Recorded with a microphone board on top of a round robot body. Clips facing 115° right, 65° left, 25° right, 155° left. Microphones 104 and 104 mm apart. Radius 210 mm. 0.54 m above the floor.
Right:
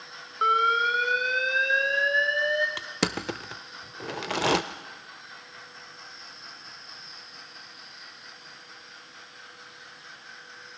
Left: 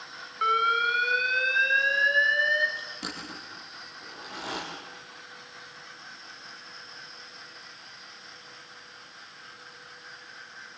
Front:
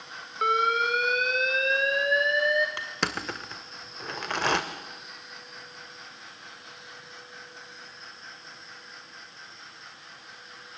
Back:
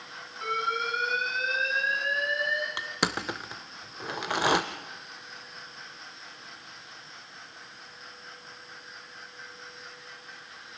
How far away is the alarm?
About 2 m.